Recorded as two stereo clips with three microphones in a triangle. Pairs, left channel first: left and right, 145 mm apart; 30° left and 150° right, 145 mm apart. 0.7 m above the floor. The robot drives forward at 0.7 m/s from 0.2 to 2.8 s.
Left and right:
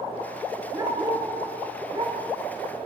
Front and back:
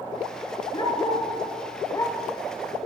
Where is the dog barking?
30° right, 3 m; by 2.2 s 40° right, 2 m.